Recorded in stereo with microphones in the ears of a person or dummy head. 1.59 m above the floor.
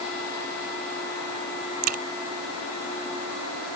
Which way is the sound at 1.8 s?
50° right (ahead or behind).